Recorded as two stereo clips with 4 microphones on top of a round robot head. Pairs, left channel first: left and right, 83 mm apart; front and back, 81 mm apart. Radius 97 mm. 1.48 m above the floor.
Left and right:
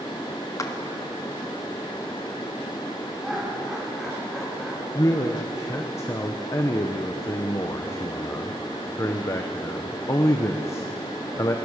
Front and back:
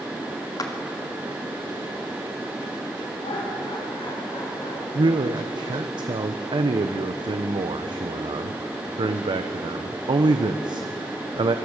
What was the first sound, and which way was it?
A clap, 40° left.